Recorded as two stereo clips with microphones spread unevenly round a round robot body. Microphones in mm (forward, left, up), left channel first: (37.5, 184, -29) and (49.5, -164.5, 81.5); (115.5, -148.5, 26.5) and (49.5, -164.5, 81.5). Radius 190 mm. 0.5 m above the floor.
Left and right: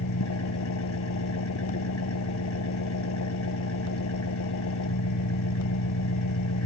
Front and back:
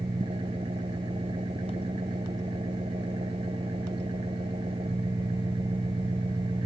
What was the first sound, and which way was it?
An engine running, 145° left.